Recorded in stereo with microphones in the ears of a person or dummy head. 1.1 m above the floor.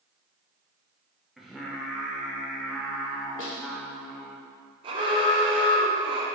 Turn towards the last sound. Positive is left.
turn(degrees=-25)  # may be behind; listen again after turning